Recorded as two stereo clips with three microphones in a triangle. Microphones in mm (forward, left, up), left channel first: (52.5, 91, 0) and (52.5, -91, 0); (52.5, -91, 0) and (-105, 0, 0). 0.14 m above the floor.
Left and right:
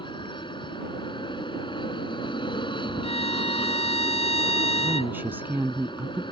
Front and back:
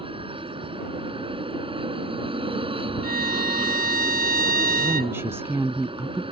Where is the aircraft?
125° left.